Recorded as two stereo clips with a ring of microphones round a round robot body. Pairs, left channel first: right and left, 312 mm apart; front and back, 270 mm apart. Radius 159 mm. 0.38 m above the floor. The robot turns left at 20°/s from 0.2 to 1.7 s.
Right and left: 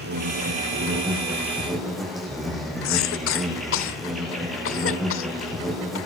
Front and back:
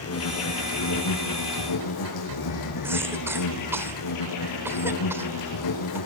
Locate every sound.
0.0 s an insect: 30° left, 9.5 m; by 6.1 s straight ahead, 9.5 m
2.8 s a cough: 100° right, 1.3 m